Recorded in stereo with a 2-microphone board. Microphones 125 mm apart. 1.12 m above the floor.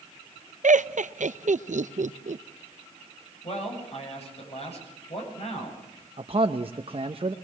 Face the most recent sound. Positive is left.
turn(degrees=-50)  # may be behind; listen again after turning